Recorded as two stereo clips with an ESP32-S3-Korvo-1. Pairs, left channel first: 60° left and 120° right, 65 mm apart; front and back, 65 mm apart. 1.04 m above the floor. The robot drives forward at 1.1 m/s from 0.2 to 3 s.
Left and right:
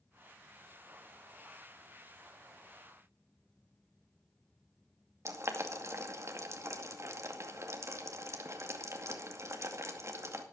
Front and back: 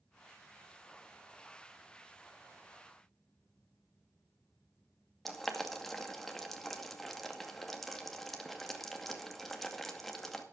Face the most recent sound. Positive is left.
turn(degrees=-85)